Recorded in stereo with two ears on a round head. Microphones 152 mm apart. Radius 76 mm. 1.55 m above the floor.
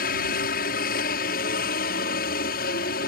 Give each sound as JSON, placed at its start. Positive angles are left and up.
{"t": 0.0, "sound": "a helicopter", "side_deg": 55}